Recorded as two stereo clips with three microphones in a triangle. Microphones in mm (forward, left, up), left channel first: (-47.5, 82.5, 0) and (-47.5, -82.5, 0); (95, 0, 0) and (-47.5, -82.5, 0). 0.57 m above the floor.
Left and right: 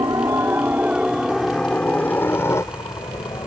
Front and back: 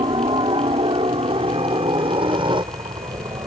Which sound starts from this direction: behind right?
A helicopter, at 0.0 s.